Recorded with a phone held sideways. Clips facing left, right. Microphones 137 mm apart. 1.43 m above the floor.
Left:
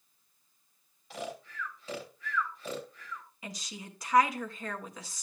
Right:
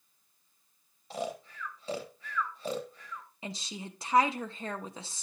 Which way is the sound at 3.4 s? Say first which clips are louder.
Right 5 dB; 25° right (ahead or behind).